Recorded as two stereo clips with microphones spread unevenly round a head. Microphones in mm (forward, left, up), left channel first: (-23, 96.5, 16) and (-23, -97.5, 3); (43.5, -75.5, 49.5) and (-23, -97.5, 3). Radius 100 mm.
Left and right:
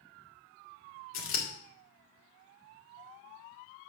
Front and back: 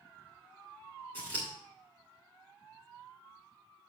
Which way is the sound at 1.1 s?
80° left.